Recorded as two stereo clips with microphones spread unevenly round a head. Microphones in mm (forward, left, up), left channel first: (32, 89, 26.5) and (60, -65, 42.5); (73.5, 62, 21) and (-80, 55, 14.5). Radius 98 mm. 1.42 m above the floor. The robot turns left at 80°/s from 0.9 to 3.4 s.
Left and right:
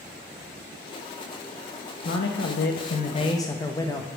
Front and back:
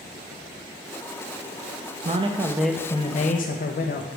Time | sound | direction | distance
2.0 | a man speaking | 140° left | 0.7 m